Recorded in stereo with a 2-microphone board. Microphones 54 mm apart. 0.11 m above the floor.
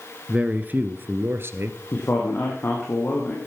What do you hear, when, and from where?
0.3 s a man speaking: 20° right (ahead or behind), 1.4 m; by 1.8 s 50° right (ahead or behind), 1.9 m
1.9 s a man speaking: 40° left (ahead or behind), 4 m